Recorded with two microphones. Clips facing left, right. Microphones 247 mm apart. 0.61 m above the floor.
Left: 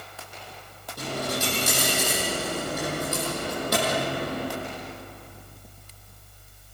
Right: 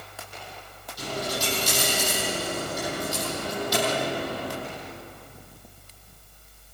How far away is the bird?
No bird in this recording.